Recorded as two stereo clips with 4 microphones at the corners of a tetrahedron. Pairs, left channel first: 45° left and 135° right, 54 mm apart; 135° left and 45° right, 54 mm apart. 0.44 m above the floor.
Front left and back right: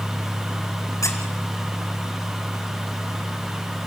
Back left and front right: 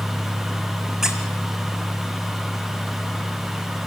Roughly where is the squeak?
Ahead left.